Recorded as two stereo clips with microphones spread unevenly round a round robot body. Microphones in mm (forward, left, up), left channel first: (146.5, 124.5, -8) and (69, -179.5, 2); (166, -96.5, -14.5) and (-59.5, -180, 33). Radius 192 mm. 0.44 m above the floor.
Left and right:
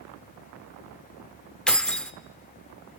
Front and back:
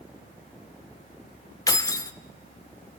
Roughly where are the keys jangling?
Ahead.